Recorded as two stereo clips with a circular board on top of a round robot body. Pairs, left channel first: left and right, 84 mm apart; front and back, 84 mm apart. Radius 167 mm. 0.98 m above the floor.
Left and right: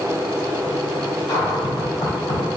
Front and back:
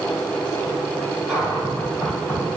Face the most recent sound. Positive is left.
turn(degrees=100)